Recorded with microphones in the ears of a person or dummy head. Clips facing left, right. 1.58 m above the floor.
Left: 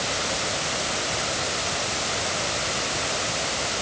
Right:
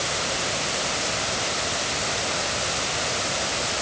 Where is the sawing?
No sawing in this recording.